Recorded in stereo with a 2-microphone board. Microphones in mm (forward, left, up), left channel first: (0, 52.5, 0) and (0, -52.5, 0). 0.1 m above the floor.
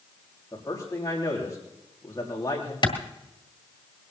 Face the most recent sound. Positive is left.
turn(degrees=45)  # may be behind; listen again after turning